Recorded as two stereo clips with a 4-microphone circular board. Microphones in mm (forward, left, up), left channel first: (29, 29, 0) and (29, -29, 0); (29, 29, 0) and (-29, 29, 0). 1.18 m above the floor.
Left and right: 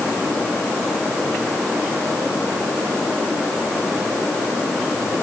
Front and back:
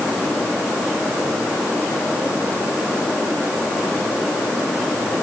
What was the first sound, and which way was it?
Only background noise.